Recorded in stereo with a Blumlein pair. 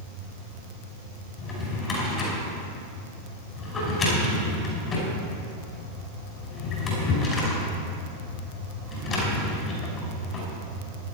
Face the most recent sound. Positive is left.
turn(degrees=25)